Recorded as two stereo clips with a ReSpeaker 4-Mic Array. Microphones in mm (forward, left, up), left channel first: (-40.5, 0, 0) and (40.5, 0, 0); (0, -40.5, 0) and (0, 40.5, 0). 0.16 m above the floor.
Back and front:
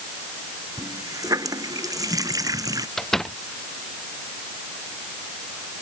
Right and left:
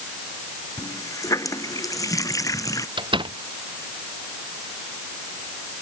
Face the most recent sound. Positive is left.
turn(degrees=95)